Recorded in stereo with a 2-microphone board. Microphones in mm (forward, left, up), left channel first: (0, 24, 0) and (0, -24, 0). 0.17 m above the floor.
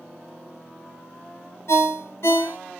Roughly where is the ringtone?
Left.